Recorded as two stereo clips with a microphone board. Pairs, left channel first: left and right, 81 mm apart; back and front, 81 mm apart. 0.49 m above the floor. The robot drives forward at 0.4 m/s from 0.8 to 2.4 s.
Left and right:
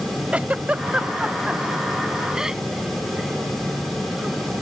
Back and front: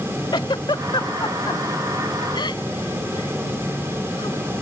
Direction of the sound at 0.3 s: 160° right.